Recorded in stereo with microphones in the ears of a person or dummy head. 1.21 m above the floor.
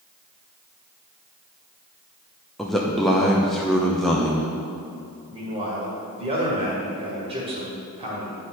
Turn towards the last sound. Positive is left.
turn(degrees=-30)  # may be behind; listen again after turning